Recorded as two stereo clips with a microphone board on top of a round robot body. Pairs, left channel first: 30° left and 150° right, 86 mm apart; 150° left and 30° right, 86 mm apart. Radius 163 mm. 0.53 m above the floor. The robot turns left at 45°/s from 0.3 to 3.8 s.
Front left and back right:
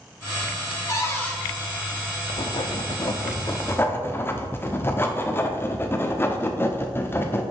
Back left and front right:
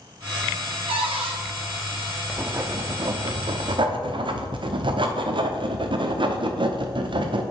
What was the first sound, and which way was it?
A cupboard door, 20° right.